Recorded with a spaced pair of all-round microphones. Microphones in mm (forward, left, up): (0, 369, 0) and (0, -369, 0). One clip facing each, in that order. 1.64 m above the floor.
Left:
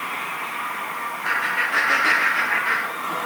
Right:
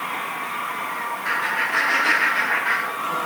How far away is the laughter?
About 4 m.